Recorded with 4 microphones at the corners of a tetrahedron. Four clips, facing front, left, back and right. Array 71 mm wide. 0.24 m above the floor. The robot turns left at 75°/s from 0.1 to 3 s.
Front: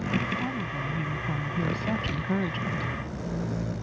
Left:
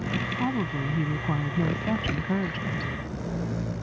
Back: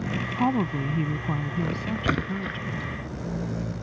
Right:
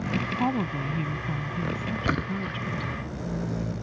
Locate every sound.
0.4 s a woman speaking: 165° right; by 2.9 s 5° left
2.0 s a splash: 150° right; by 2.6 s 170° left